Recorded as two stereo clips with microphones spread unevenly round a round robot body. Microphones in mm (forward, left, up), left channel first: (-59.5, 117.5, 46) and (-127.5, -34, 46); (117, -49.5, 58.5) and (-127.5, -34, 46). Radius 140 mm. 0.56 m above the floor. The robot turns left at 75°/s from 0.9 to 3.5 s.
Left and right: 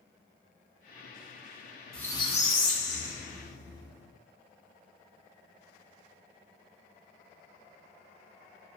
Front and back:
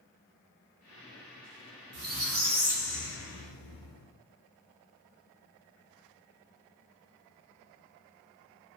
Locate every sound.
1.9 s a squeak: 155° left, 0.8 m; by 4.1 s 35° left, 0.8 m